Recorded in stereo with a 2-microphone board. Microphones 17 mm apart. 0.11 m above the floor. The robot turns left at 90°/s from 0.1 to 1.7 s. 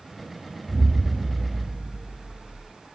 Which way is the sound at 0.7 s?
175° left.